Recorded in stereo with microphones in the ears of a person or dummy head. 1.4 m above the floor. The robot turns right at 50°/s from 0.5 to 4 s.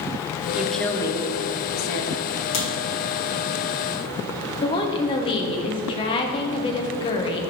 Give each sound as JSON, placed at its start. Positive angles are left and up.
{"t": 0.6, "sound": "a woman speaking", "azimuth_deg": -5, "distance_m": 0.7}
{"t": 2.5, "sound": "a crack", "side_deg": 75, "distance_m": 2.0}
{"t": 4.6, "sound": "a woman speaking", "side_deg": 25, "distance_m": 0.6}